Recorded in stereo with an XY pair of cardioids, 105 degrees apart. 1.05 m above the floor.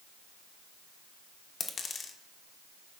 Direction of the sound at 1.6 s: 45° left.